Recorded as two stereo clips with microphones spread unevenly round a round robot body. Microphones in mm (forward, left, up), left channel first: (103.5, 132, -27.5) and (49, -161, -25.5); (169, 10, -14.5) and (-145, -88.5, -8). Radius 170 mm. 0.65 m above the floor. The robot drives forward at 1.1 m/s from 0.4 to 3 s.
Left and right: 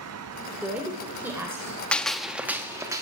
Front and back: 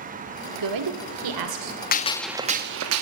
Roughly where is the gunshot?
Ahead.